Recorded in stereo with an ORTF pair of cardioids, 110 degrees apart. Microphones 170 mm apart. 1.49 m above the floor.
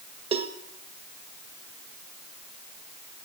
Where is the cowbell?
35° right, 1.5 m.